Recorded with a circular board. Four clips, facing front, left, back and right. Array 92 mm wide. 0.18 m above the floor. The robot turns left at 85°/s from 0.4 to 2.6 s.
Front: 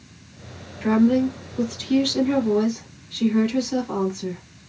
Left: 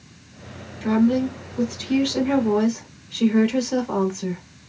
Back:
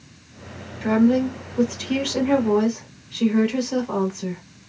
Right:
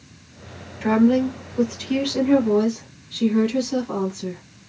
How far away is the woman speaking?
About 1.1 m.